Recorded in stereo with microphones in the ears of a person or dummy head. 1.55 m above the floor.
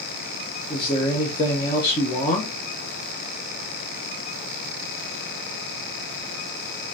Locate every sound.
0.7 s a man speaking: 25° left (ahead or behind), 0.7 m